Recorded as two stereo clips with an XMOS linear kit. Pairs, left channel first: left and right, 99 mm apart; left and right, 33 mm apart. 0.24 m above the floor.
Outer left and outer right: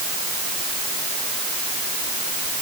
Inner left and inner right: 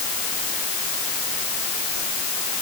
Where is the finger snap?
No finger snap in this recording.